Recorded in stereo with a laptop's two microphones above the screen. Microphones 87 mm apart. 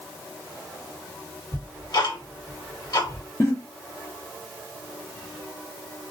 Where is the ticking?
55° left (ahead or behind), 1.4 m.